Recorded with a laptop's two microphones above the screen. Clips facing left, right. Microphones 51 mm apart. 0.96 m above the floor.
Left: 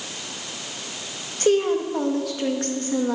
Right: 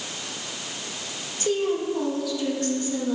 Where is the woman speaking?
55° left (ahead or behind), 1.4 m.